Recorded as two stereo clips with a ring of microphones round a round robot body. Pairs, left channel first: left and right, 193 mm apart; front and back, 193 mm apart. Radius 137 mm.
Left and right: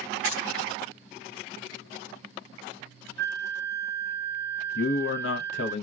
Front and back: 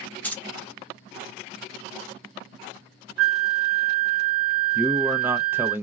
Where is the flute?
175° left, 0.5 m.